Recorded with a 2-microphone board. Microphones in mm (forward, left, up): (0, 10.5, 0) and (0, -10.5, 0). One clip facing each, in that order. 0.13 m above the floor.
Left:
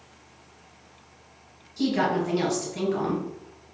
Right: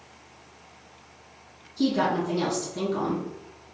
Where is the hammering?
I don't hear hammering.